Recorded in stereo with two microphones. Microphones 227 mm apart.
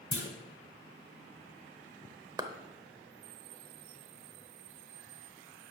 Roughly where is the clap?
Centre.